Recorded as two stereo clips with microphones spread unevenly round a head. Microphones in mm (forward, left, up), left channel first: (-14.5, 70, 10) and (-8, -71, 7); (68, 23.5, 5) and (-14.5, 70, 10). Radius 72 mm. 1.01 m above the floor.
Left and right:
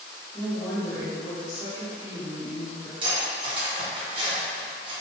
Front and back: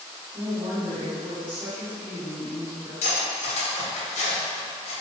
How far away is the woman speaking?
About 1.3 m.